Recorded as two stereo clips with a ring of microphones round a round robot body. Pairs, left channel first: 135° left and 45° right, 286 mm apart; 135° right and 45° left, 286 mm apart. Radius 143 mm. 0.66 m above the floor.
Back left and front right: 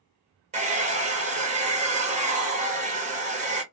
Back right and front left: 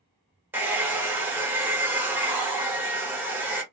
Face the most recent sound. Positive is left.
turn(degrees=-30)